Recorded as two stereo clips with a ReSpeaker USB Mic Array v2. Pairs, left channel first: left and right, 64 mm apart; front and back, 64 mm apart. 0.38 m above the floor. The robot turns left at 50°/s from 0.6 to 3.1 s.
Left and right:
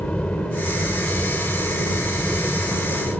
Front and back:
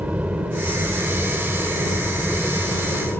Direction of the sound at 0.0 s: 140° left.